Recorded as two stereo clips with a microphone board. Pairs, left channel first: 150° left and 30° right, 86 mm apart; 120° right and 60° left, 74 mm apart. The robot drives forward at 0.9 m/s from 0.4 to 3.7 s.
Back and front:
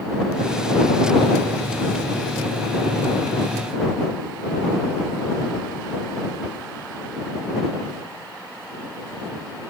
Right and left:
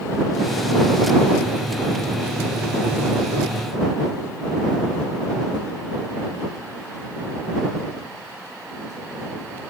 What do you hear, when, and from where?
Only background noise.